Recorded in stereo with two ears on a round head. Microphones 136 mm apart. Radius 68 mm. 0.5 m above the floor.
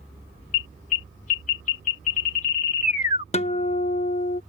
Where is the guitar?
40° left (ahead or behind).